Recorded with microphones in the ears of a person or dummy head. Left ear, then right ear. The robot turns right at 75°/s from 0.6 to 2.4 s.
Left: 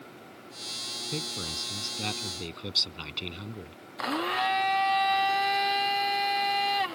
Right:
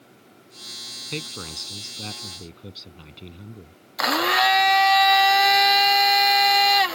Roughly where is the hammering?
No hammering in this recording.